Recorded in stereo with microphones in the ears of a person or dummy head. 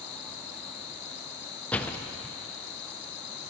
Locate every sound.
0.0 s an insect: 65° left (ahead or behind), 1.1 m
1.7 s a door slam: 10° left (ahead or behind), 0.6 m